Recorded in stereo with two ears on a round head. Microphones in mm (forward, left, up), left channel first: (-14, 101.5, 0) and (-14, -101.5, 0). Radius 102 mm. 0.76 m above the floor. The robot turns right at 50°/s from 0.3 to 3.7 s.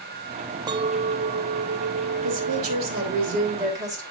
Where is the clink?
155° right, 0.5 m; by 3.1 s 35° right, 0.5 m.